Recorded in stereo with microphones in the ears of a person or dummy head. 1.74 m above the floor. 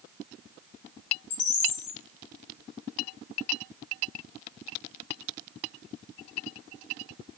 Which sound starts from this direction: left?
A bird, at 1.3 s.